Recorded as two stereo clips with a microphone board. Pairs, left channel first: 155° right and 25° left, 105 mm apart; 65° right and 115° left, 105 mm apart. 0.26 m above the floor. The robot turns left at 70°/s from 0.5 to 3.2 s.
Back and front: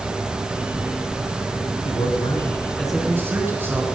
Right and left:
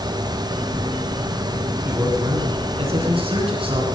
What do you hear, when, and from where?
1.9 s a man speaking: 175° right, 3 m; by 3.9 s 90° left, 3 m